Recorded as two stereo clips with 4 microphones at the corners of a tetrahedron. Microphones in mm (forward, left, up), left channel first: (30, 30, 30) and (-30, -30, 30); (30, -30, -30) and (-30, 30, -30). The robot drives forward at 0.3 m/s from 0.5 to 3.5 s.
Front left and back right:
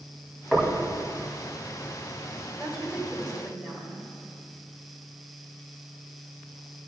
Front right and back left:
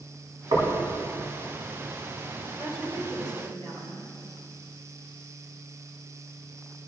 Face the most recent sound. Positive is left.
turn(degrees=145)